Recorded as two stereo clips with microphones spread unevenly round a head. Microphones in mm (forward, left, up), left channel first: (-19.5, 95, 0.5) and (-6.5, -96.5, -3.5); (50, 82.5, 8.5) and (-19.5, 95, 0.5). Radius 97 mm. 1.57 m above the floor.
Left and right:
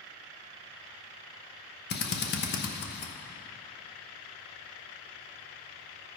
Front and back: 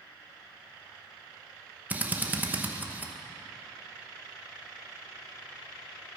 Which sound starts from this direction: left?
A drill, at 1.9 s.